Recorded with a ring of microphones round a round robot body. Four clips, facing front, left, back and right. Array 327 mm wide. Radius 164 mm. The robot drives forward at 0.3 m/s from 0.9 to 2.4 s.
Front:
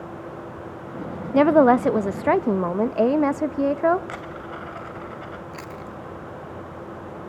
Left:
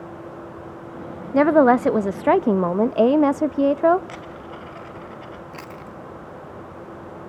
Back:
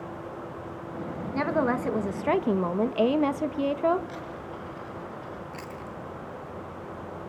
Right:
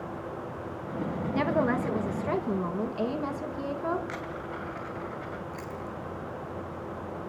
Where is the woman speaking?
45° left, 0.7 m; by 4.0 s 75° left, 0.5 m.